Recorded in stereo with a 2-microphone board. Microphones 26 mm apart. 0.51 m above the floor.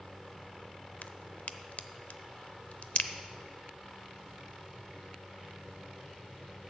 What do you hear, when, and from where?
1.0 s a crack: 65° left (ahead or behind), 0.5 m